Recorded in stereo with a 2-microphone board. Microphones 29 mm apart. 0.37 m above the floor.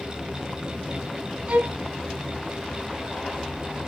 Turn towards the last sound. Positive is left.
turn(degrees=-60)  # may be behind; listen again after turning